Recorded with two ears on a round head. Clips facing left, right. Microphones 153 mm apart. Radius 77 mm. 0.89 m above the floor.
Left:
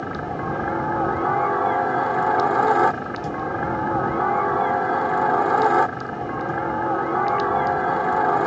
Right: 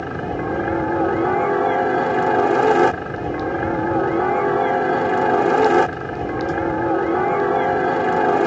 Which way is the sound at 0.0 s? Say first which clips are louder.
Right 3 dB; 30° right (ahead or behind).